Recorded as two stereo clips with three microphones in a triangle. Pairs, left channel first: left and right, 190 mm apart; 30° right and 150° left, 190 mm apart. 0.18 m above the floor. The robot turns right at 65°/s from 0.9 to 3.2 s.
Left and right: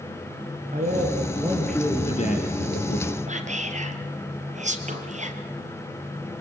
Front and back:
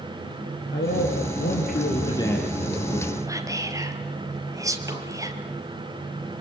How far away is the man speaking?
About 3.5 m.